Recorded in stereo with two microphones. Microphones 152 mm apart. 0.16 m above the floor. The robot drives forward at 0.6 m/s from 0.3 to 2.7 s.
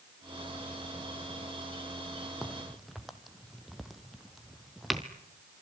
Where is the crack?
Centre (ahead or behind), 1.6 m.